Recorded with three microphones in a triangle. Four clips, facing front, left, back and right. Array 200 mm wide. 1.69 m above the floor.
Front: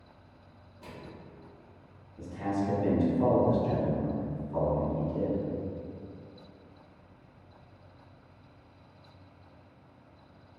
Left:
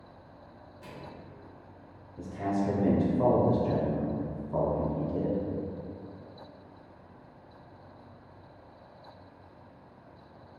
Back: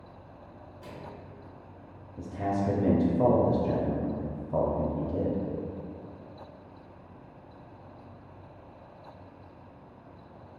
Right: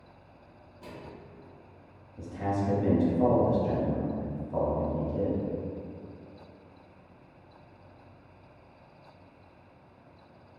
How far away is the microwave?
About 0.9 m.